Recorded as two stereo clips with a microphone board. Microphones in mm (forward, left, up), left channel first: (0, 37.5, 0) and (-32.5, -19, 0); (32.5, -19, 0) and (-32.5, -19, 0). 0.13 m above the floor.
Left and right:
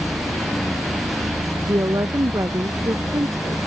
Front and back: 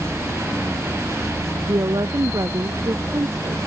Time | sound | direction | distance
1.7 | a woman speaking | 155° right | ?